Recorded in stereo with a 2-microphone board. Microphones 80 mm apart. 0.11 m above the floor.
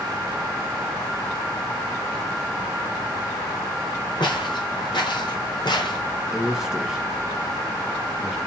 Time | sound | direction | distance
4.2 | footsteps | 70° left (ahead or behind) | 4.5 m
6.3 | a man speaking | 5° right (ahead or behind) | 1.7 m